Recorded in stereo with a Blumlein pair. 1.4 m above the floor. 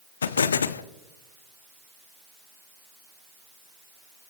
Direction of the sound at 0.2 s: 70° left.